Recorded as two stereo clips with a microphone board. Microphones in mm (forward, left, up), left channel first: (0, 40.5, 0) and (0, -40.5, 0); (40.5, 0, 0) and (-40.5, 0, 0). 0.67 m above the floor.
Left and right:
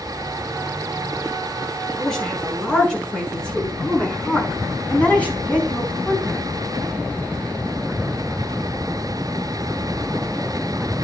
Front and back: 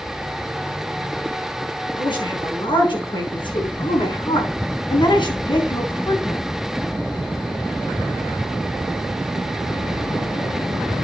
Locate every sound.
2.0 s a woman speaking: 10° left, 7 m; by 6.5 s 20° left, 4 m